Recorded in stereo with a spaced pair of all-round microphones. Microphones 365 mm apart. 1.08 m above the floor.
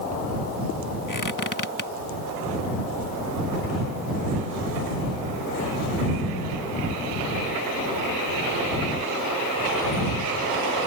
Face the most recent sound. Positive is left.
turn(degrees=55)  # may be behind; listen again after turning